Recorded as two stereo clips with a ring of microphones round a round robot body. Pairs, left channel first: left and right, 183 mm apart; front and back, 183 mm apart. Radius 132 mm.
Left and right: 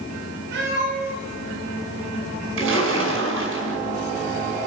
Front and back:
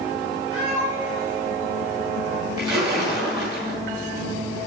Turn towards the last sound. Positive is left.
turn(degrees=-105)